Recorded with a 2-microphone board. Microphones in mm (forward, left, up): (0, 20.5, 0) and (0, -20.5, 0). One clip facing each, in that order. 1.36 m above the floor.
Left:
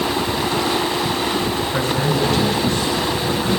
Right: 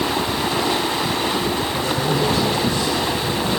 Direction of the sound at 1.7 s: 75° left (ahead or behind).